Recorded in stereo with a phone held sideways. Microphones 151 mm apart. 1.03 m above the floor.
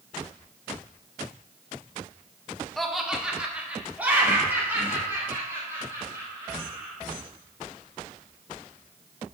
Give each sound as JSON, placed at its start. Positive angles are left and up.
{"t": 2.8, "sound": "laughter", "side_deg": 0, "distance_m": 1.0}